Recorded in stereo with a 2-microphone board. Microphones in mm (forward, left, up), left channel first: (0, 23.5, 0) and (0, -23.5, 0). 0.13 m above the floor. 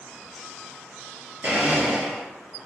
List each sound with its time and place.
1.4 s a blender: 40° right (ahead or behind), 1.3 m